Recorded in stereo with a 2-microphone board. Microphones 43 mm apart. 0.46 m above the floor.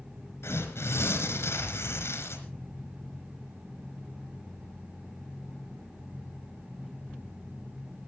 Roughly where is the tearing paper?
Left.